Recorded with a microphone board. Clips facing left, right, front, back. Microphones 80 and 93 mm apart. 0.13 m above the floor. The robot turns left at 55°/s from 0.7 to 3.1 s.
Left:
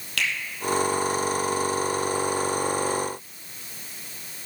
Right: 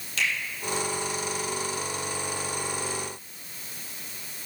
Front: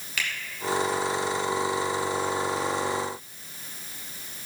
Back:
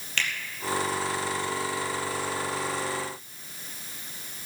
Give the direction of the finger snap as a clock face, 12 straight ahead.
9 o'clock.